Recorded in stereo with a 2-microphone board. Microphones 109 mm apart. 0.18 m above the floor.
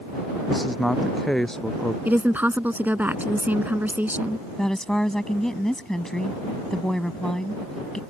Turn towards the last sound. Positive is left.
turn(degrees=5)  # may be behind; listen again after turning